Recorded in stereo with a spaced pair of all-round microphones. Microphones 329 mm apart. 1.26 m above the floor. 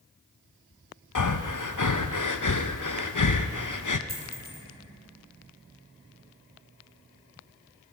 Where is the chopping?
I don't hear chopping.